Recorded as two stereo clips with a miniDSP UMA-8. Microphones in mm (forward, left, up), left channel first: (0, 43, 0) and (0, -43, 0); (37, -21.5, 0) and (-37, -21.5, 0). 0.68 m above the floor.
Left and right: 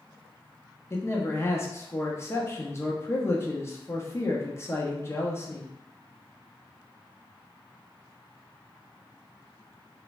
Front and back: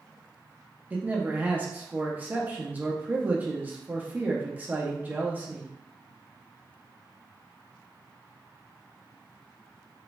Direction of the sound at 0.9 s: 125° left.